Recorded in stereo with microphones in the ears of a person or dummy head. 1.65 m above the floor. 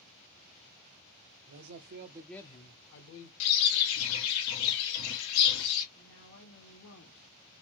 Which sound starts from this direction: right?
A man speaking, at 1.5 s.